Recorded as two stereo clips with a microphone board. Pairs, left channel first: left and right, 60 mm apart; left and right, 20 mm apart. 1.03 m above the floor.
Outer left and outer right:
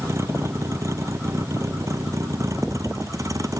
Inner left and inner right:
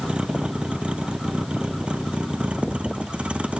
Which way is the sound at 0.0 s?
55° right (ahead or behind).